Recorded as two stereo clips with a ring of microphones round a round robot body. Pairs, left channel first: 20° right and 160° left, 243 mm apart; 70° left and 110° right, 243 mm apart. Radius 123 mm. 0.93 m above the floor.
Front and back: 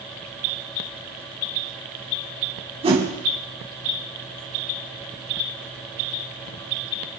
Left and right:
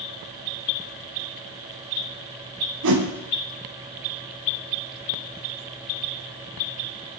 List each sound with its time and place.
2.8 s a whoosh: 135° right, 4 m